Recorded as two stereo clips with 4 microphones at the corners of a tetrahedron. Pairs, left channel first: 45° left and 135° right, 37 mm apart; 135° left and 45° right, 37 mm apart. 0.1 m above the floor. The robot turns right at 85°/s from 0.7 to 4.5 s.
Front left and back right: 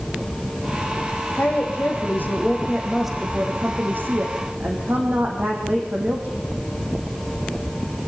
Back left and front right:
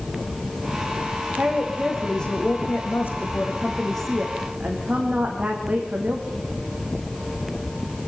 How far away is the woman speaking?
About 5.5 m.